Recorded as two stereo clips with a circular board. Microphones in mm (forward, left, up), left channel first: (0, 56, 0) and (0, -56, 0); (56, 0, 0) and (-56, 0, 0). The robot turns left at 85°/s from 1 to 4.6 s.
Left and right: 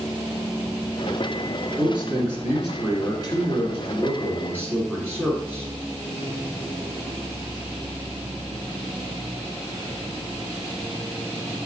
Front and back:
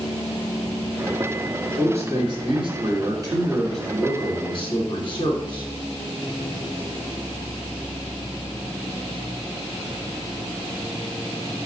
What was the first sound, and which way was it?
A man speaking, 105° right.